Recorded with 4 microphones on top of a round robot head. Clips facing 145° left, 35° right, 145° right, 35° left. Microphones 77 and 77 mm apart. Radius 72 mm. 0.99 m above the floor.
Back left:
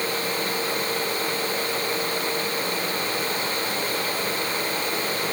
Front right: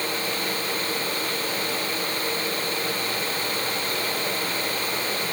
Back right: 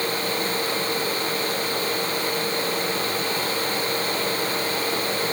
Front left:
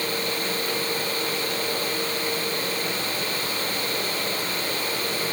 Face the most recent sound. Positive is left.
No sound to turn to.